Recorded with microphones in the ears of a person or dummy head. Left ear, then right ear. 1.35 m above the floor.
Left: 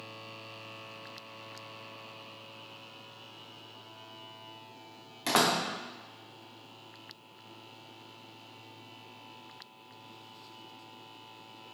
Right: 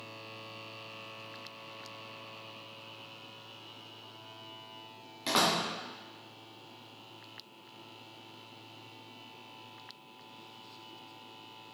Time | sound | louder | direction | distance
5.3 | a door slam | left 1 dB | 20° left (ahead or behind) | 1.1 m